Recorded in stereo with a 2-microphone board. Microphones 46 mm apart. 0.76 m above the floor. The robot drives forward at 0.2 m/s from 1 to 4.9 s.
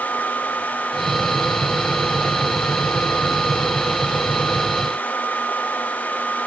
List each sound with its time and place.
Only background noise.